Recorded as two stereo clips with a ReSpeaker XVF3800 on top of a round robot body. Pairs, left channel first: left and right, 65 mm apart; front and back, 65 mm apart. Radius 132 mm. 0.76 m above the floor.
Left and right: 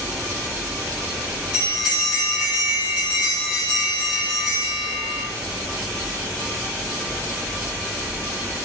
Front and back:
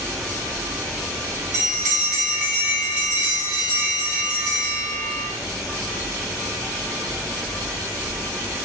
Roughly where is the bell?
Left.